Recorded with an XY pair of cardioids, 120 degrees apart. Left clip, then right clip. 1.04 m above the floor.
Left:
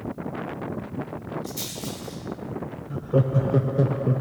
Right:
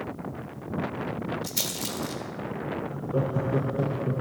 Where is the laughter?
40° left, 0.6 m.